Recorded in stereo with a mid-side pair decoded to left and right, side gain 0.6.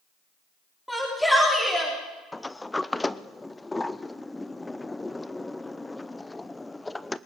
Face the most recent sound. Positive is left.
turn(degrees=10)